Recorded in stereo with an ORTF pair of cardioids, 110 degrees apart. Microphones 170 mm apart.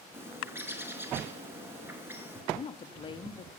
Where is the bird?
15° right, 4.5 m.